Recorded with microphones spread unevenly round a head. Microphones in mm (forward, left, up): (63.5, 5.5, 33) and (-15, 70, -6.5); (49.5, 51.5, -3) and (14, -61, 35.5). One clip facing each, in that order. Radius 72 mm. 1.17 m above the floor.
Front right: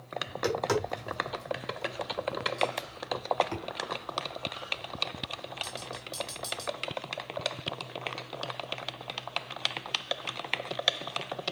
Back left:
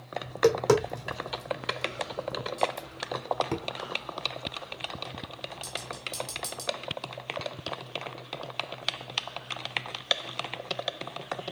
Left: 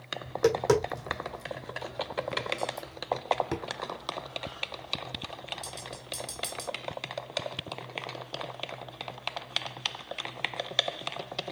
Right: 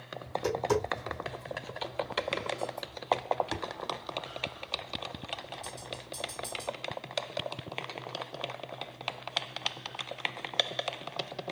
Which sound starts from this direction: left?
Tapping, at 0.2 s.